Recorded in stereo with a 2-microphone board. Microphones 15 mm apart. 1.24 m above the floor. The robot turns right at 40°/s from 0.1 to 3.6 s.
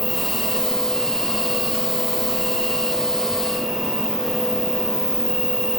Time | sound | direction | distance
0.0 | an insect | 5° left | 3.5 m